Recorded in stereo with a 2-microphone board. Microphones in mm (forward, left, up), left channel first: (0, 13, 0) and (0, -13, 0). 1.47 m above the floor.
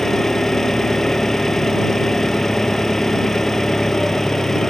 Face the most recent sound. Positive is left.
turn(degrees=15)  # may be behind; listen again after turning